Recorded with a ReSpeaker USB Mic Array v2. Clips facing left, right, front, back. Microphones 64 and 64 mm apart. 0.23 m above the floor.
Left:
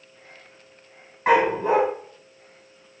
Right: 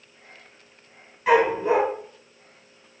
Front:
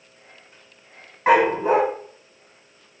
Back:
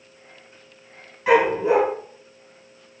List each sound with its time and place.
1.3 s a dog barking: 40° left, 3.5 m